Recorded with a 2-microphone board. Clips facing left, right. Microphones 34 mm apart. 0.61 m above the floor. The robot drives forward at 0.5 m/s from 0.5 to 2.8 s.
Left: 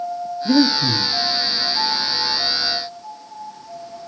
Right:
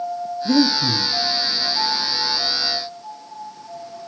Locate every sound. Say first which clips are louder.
0.5 s breathing: left 1 dB; 20° left (ahead or behind), 0.6 m; by 1.1 s 10° left (ahead or behind), 0.9 m